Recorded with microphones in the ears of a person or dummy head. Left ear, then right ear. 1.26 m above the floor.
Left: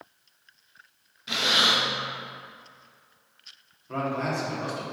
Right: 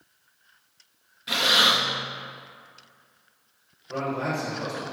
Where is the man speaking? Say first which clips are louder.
Even; 85° left, 2.5 m.